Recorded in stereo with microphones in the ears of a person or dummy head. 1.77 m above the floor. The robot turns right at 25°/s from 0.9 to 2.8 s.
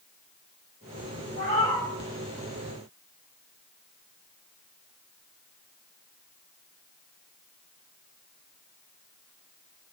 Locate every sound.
1.4 s a cat meowing: 30° left (ahead or behind), 1.6 m